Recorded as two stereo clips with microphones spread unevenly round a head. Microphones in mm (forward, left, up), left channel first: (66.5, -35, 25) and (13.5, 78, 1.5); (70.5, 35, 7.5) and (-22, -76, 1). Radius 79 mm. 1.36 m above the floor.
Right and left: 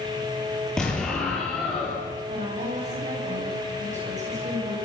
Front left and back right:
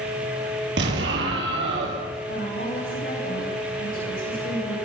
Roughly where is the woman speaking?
Left.